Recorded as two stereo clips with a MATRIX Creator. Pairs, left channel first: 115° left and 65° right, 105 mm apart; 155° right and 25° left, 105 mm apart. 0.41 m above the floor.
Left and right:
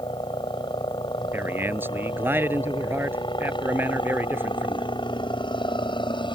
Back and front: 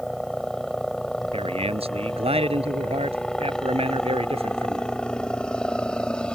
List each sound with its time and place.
0.0 s a helicopter: 115° left; by 6.3 s 125° left
1.3 s a man speaking: 5° left